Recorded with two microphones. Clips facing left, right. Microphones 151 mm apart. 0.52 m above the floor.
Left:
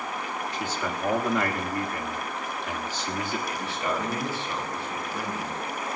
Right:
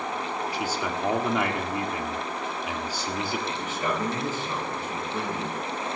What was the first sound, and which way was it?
A man speaking, 10° right (ahead or behind).